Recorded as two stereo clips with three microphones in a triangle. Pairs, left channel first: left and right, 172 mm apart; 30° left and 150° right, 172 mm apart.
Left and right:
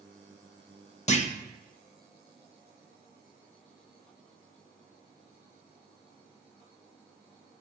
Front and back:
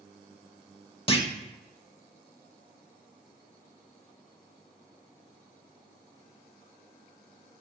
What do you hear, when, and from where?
1.1 s a clunk: 70° left, 0.7 m